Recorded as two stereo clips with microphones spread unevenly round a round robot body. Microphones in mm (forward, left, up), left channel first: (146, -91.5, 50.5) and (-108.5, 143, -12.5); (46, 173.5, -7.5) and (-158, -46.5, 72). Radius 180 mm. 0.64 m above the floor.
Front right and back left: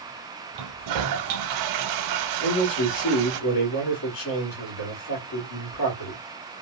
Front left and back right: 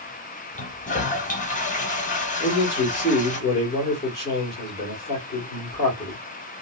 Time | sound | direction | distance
0.6 | a toilet flushing | 120° left | 0.6 m
2.4 | a man speaking | 20° right | 1.6 m